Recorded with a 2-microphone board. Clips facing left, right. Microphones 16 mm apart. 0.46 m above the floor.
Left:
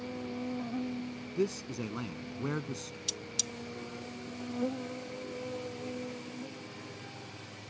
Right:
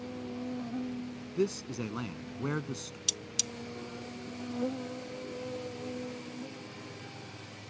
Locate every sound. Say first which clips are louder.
0.0 s an insect: left 1 dB; 50° left (ahead or behind)
1.4 s a man speaking: right 1 dB; 15° right (ahead or behind)
3.1 s cutlery clinking: right 3 dB; 35° right (ahead or behind)